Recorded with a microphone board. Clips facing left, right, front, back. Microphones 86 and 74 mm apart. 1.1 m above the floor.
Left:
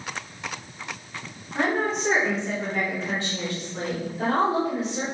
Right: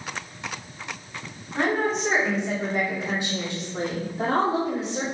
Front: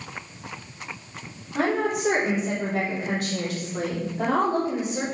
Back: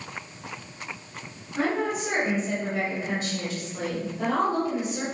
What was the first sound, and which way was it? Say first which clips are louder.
A woman speaking: right 1 dB, front 2 dB; 5° left.